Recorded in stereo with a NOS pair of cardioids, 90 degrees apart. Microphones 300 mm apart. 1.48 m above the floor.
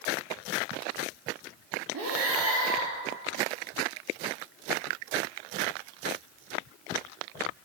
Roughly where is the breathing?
Ahead right.